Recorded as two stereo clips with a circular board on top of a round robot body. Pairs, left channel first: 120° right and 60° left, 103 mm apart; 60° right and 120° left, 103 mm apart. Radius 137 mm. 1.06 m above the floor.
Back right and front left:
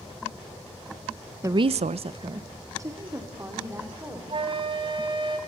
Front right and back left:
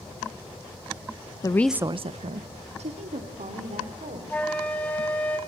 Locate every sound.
1.4 s a woman speaking: 5° right, 0.7 m; by 4.2 s 130° left, 4 m
4.3 s a flute: 20° left, 2 m